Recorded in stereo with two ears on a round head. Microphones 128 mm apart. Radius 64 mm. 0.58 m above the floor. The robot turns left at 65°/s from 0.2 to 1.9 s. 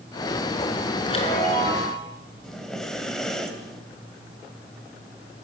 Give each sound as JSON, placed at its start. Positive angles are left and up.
{"t": 1.0, "sound": "a chime", "azimuth_deg": 145, "distance_m": 5.5}
{"t": 2.4, "sound": "breathing", "side_deg": 5, "distance_m": 2.5}